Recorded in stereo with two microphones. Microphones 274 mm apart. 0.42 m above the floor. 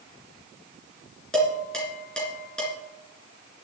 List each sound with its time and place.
1.3 s dishes clattering: 5° left (ahead or behind), 3.5 m